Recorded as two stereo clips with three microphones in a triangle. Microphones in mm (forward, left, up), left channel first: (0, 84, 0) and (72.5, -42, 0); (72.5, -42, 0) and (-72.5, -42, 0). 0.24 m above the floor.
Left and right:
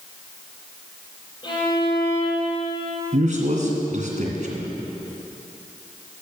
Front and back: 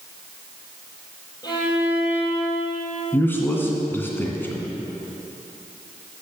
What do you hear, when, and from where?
1.4 s a violin: 65° left, 3.5 m
3.1 s a man speaking: 75° right, 2 m